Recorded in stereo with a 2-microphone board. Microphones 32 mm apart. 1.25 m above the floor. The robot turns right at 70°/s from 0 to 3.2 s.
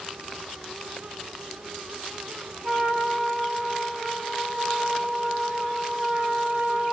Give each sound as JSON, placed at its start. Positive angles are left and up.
{"t": 2.6, "sound": "a trumpet", "azimuth_deg": -85, "distance_m": 1.5}